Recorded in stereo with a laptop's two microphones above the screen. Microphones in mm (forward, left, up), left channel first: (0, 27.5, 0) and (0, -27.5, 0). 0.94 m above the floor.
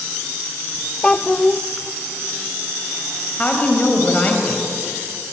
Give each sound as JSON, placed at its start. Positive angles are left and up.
{"t": 1.0, "sound": "a child speaking", "side_deg": 20, "distance_m": 0.6}
{"t": 3.4, "sound": "a woman speaking", "side_deg": 25, "distance_m": 4.5}